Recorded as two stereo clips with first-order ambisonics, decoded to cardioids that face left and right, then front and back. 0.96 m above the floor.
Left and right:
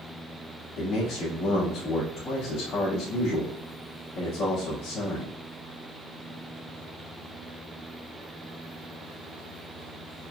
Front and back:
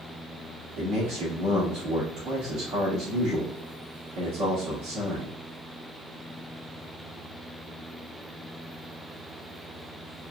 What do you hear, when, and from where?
0.8 s a man speaking: 145° left, 2 m